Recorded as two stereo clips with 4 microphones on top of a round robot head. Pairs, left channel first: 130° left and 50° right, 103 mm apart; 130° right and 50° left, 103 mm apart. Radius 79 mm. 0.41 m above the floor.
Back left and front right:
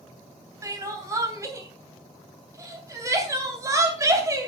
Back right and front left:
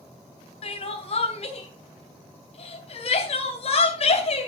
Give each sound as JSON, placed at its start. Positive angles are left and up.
{"t": 0.6, "sound": "crying", "azimuth_deg": -110, "distance_m": 3.0}